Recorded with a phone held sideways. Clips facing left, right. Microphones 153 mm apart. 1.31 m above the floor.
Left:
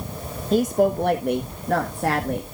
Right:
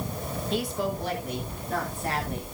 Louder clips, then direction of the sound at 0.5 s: Left 11 dB; 40° left (ahead or behind).